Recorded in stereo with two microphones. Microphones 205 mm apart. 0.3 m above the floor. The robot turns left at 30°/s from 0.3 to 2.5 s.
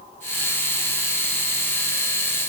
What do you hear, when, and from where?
Only background noise.